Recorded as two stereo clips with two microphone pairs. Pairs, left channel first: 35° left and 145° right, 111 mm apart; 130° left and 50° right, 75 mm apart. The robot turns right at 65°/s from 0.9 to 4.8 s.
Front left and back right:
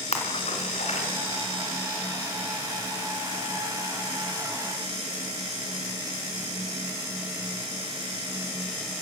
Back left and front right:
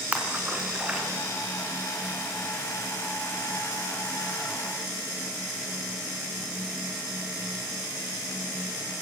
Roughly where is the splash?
Ahead.